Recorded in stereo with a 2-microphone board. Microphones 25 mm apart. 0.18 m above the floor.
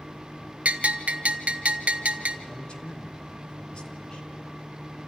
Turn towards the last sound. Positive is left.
turn(degrees=40)  # may be behind; listen again after turning